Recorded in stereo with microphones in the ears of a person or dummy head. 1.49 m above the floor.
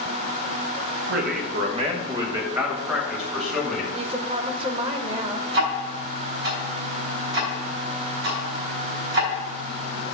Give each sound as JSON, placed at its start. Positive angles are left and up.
{"t": 1.1, "sound": "a man speaking", "side_deg": -60, "distance_m": 1.2}
{"t": 3.9, "sound": "a woman speaking", "side_deg": -35, "distance_m": 0.8}
{"t": 5.5, "sound": "ticking", "side_deg": -70, "distance_m": 3.0}